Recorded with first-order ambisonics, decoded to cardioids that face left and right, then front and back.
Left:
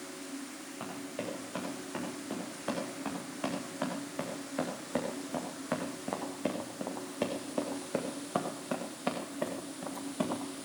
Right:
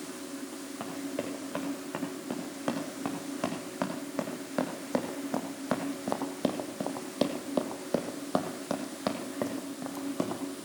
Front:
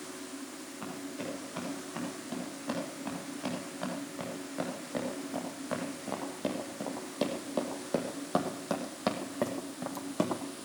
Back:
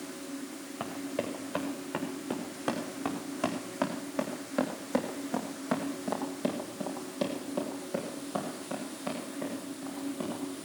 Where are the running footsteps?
150° right, 5.5 m; by 10.4 s 30° right, 3 m.